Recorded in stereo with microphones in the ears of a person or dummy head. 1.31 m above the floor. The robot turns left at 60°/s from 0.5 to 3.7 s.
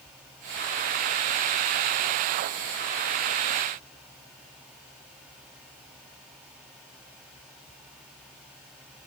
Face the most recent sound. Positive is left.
No sound to turn to.